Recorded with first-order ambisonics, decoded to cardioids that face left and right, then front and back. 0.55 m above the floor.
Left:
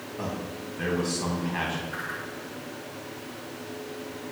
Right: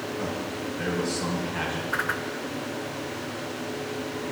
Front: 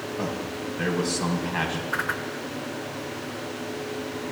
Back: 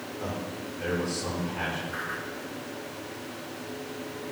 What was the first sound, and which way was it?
A man speaking, 10° left.